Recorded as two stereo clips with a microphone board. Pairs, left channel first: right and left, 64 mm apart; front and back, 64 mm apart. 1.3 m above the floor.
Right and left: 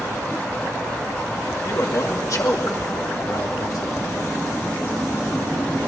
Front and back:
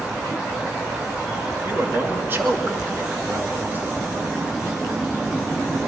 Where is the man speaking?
120° right, 2.5 m.